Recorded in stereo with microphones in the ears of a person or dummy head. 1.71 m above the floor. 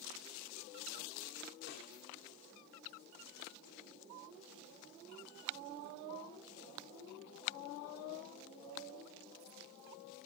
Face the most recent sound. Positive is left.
turn(degrees=55)  # may be behind; listen again after turning